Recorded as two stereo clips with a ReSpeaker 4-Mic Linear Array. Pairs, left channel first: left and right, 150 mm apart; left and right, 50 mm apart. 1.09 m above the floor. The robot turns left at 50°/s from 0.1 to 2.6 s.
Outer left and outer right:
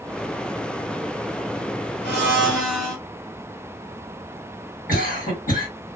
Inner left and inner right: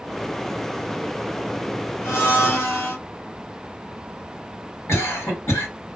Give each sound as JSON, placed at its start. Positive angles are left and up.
{"t": 2.0, "sound": "a blender", "side_deg": 65, "distance_m": 1.9}
{"t": 4.9, "sound": "a cough", "side_deg": 65, "distance_m": 1.9}